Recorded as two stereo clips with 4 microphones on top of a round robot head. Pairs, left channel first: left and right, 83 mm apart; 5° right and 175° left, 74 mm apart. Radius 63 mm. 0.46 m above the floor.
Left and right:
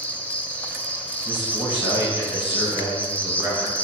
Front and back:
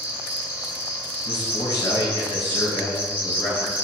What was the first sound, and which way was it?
An insect, 135° left.